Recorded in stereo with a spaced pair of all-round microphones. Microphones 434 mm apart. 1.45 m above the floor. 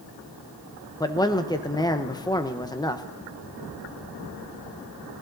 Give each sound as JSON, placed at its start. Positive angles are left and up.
{"t": 1.0, "sound": "a man speaking", "side_deg": 10, "distance_m": 1.0}